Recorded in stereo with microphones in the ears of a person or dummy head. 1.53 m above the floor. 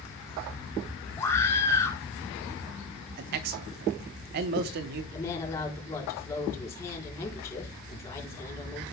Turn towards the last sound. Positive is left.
turn(degrees=15)  # may be behind; listen again after turning